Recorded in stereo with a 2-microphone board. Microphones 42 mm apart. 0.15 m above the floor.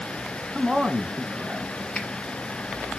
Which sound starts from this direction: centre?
A man speaking, at 0.6 s.